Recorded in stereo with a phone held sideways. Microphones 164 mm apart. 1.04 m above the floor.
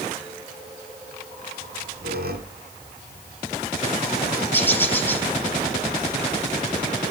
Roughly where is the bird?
Centre.